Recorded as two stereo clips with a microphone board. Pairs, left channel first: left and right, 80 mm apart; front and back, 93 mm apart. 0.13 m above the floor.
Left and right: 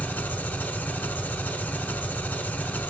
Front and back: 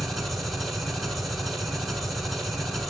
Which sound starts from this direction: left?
An engine running, at 0.0 s.